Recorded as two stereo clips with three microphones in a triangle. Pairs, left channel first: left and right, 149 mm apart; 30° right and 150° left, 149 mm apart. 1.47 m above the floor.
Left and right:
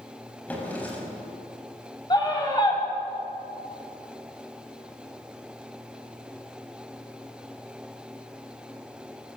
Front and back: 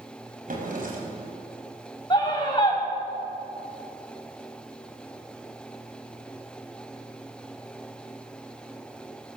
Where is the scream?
30° left, 8 m.